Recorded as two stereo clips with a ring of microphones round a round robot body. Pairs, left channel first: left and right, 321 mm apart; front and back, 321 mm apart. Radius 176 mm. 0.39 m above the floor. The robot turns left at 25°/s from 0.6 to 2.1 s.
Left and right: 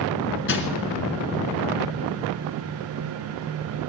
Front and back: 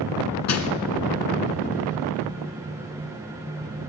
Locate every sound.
0.5 s crushing: 40° left, 1.4 m; by 0.7 s 35° left, 1.4 m